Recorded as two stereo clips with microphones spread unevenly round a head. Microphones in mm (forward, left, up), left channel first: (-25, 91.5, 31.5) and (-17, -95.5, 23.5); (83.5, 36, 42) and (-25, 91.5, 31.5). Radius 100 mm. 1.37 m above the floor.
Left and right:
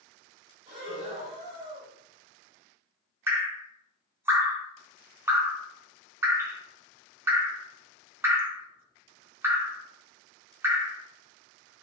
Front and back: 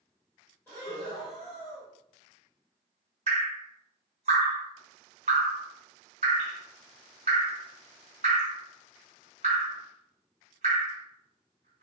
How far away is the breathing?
About 1.1 m.